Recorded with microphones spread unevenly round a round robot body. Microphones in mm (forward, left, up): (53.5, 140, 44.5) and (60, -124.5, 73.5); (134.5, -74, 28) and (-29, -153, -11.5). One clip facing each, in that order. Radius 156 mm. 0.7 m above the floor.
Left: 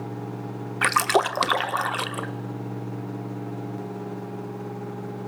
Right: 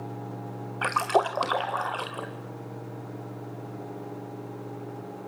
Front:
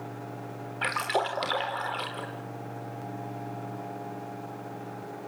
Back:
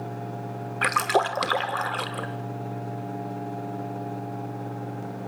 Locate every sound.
0.8 s a splash: 155° left, 1.0 m